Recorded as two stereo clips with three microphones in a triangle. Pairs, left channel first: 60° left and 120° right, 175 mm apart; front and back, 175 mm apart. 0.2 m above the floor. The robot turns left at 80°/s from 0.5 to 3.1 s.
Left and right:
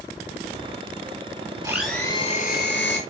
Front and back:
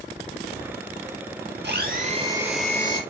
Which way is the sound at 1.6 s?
170° left.